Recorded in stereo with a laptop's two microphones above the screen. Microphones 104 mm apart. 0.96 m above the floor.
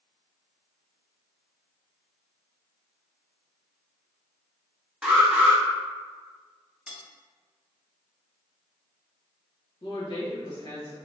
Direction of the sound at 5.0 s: 10° right (ahead or behind).